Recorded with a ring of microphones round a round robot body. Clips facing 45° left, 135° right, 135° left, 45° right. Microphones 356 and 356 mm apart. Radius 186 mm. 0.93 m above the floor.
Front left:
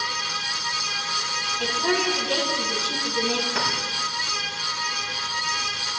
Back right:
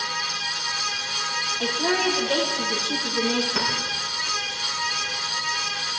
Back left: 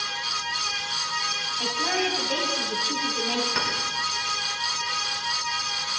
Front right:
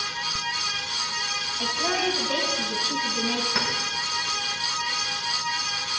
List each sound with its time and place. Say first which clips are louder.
1.6 s a woman speaking: back right 1 dB, even; 30° right, 5.5 m
3.5 s a clink: back right 1 dB, front right 1 dB; 50° right, 5 m